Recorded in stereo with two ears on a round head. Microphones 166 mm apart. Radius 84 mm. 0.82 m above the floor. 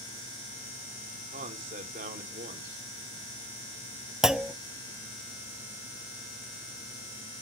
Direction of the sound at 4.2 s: 5° right (ahead or behind).